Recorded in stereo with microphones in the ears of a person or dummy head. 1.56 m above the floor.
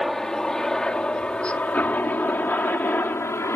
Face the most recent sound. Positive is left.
turn(degrees=15)  # may be behind; listen again after turning